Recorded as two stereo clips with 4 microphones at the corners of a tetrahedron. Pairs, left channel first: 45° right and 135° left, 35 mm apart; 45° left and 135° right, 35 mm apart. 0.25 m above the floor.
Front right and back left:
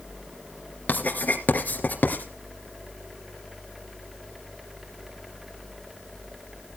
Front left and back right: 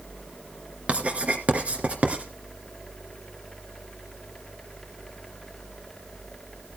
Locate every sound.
0.9 s writing: 85° right, 2.0 m